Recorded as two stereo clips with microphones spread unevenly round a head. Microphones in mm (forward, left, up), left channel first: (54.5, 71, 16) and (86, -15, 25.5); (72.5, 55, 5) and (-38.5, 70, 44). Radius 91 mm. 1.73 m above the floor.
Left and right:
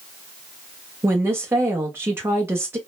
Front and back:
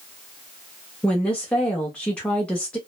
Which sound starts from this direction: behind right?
A woman speaking, at 1.0 s.